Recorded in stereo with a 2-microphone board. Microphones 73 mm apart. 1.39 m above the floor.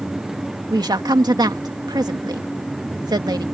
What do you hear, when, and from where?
0.7 s a woman speaking: 75° right (ahead or behind)